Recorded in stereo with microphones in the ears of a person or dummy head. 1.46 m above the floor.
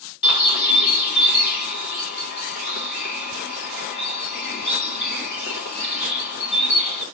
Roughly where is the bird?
Left.